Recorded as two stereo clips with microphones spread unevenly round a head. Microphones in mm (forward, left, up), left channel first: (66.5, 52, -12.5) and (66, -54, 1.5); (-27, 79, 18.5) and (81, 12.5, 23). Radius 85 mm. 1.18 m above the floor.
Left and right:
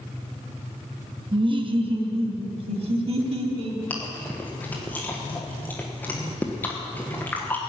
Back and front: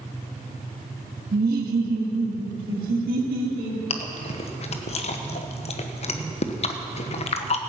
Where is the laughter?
45° right, 1.3 m; by 3.8 s 65° right, 2.5 m.